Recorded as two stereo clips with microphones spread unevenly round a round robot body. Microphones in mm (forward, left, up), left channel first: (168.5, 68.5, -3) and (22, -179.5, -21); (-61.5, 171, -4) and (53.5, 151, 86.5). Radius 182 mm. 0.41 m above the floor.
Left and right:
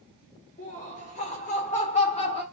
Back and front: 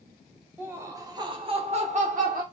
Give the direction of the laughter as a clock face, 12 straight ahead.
8 o'clock.